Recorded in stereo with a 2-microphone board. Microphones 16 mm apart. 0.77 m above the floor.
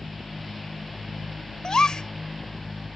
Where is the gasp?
55° left (ahead or behind).